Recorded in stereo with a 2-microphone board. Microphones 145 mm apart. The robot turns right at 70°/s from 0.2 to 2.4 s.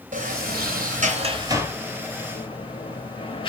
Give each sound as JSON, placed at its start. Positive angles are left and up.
{"t": 0.1, "sound": "a sliding door", "side_deg": -60, "distance_m": 0.5}